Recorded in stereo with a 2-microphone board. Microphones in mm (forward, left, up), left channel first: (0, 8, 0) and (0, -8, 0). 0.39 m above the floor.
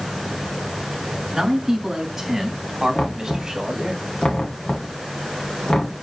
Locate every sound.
1.3 s a man speaking: 10° right (ahead or behind), 4 m; by 4.0 s 30° right (ahead or behind), 2.5 m
3.0 s knocking: 75° left (ahead or behind), 2.0 m